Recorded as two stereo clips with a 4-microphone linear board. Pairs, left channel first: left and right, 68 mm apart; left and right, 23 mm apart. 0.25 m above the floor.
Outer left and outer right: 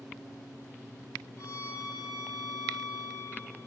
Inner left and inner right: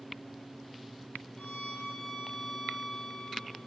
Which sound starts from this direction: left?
A violin, at 1.4 s.